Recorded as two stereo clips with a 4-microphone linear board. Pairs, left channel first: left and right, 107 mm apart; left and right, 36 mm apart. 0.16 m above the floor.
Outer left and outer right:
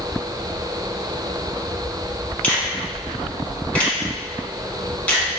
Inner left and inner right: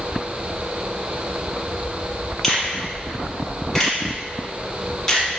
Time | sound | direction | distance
2.4 | a finger snap | 15° left (ahead or behind) | 0.9 m